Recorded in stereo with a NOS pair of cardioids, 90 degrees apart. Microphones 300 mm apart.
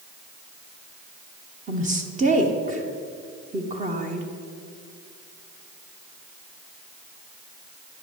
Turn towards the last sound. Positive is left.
turn(degrees=-25)